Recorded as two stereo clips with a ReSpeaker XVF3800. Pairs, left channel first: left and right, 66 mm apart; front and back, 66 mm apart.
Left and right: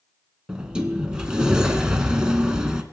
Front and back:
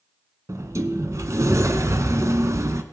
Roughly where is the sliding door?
Behind.